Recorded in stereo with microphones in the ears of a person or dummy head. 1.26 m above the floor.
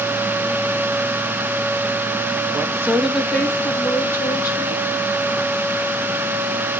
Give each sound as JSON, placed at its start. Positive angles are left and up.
{"t": 2.5, "sound": "a woman speaking", "side_deg": -25, "distance_m": 0.9}